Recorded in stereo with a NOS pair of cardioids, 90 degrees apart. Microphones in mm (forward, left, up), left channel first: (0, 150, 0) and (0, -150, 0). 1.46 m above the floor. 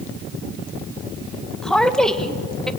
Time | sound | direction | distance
1.6 | a woman speaking | straight ahead | 1.9 m